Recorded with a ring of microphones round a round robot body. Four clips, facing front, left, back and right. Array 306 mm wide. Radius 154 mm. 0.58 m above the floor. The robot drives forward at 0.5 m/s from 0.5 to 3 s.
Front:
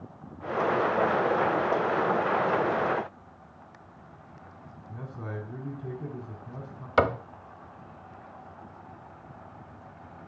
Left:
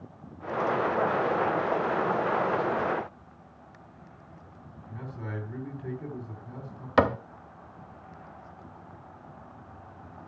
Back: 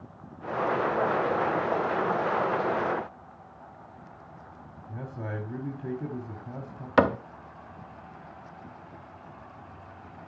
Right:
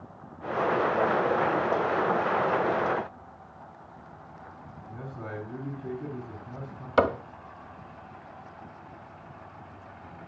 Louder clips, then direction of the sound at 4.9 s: Even, back 2 dB; 160° right.